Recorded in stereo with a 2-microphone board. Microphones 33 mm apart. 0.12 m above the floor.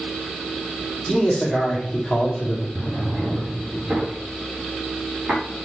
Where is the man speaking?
10° left (ahead or behind), 4.5 m.